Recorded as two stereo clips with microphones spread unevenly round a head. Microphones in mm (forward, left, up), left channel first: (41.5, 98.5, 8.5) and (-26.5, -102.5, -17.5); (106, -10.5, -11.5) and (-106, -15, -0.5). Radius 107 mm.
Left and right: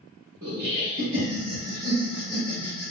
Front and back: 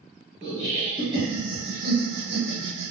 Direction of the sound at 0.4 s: 70° right.